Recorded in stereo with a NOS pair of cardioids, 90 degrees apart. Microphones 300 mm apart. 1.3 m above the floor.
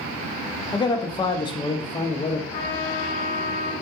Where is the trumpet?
40° left, 1.0 m.